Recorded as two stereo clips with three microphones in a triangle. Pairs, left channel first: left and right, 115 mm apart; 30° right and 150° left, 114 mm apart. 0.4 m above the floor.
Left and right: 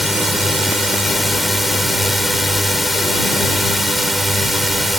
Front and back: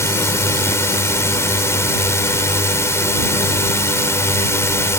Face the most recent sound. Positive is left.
turn(degrees=0)